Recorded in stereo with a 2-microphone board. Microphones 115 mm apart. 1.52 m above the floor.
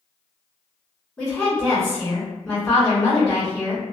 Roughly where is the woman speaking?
Centre.